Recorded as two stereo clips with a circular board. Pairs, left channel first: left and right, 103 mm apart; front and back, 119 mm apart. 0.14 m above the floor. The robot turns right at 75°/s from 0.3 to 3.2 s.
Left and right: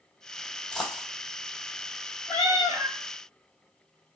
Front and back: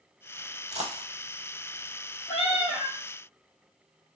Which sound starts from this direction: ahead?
A cat meowing, at 2.3 s.